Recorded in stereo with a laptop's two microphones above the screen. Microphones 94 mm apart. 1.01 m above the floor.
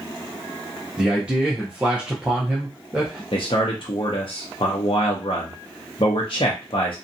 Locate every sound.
1.0 s a man speaking: 10° right (ahead or behind), 0.6 m
3.3 s a man speaking: 60° left (ahead or behind), 0.6 m